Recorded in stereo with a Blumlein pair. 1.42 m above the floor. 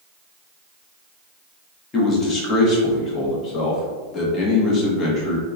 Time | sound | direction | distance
1.9 | a man speaking | 25° left | 1.2 m